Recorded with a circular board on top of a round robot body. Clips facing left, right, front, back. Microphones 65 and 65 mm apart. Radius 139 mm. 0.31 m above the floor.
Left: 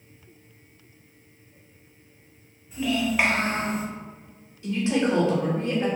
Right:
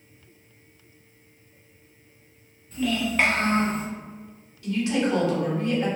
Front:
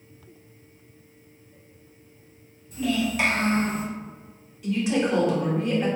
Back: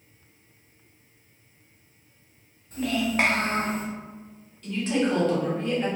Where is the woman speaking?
70° left, 1.3 m.